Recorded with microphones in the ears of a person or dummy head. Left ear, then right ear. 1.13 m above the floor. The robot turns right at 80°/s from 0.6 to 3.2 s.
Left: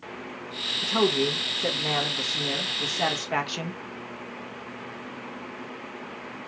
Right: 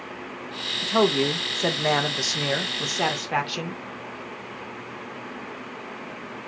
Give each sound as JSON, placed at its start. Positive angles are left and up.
{"t": 0.8, "sound": "a man speaking", "azimuth_deg": 175, "distance_m": 0.9}